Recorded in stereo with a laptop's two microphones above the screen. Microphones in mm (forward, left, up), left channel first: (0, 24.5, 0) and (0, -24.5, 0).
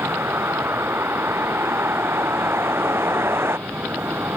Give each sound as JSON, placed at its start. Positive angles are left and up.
{"t": 0.0, "sound": "a vehicle", "side_deg": -55}